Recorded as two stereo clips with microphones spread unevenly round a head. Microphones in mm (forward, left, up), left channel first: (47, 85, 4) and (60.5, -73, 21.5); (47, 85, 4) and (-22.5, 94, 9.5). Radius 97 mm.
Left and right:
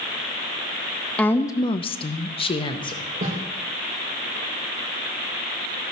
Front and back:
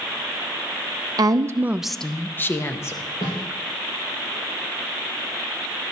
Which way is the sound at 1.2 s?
170° left.